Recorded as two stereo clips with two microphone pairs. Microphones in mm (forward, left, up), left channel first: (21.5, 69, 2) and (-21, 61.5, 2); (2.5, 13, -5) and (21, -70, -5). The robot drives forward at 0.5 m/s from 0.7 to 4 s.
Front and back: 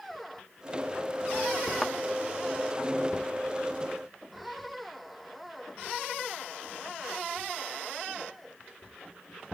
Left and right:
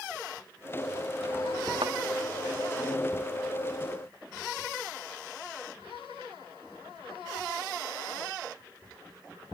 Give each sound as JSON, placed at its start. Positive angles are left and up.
{"t": 1.8, "sound": "a thud", "azimuth_deg": -80}